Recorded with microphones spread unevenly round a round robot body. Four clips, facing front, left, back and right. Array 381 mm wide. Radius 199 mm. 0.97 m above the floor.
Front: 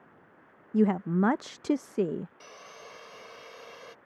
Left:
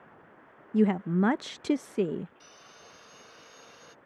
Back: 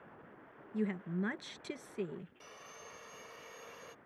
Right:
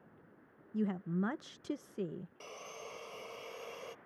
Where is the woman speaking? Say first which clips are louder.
Left 11 dB, front 12 dB; 45° left.